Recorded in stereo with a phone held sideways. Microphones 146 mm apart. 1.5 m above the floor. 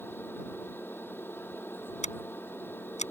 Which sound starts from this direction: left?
Scissors, at 2.0 s.